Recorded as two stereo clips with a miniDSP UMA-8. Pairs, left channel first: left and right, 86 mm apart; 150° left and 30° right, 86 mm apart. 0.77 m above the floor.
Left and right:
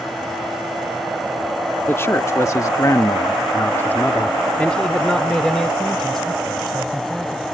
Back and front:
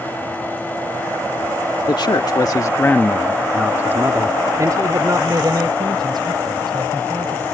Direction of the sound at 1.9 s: 145° left.